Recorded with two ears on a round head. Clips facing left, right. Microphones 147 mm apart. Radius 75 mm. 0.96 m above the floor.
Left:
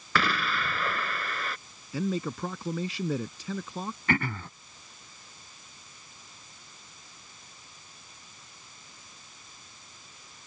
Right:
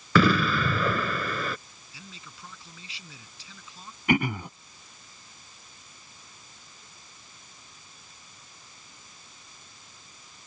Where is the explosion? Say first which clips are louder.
Right 8 dB; 90° right.